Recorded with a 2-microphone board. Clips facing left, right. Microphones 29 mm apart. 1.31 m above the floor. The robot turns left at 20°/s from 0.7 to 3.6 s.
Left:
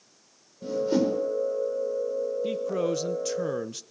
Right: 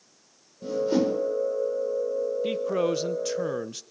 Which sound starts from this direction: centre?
A whoosh, at 0.6 s.